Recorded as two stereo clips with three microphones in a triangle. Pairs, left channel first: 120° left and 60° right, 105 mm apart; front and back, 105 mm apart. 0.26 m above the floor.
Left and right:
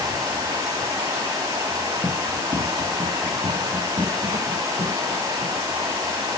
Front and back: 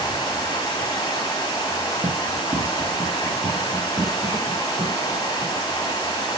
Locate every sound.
0.0 s running water: 25° right, 1.8 m
2.0 s running footsteps: 105° right, 2 m; by 5.6 s 130° right, 4.5 m